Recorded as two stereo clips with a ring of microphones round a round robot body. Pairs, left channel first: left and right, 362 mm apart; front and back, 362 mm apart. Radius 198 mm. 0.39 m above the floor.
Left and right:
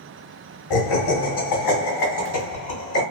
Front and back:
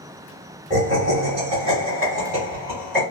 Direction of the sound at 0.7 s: 105° left.